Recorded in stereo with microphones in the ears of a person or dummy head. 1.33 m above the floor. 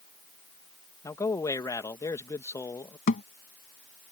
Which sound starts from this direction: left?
A thud, at 3.1 s.